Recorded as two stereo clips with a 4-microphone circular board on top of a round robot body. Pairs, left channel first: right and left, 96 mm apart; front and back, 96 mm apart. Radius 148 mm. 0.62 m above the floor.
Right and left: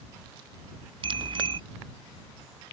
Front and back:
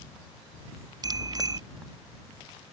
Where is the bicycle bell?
130° left.